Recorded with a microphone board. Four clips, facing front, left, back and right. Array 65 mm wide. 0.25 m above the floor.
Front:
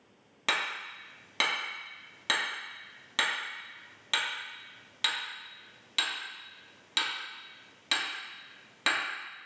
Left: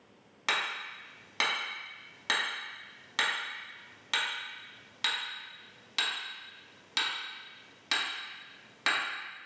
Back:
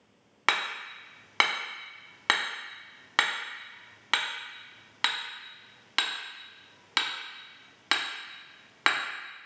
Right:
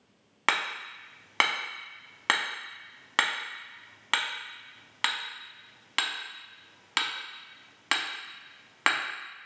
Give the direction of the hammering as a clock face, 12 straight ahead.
5 o'clock.